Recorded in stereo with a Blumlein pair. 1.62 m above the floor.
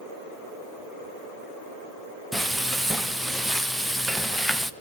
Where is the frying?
Straight ahead, 1.0 m.